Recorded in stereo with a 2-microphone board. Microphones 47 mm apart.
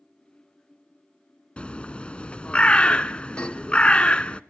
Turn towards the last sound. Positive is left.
turn(degrees=25)  # may be behind; listen again after turning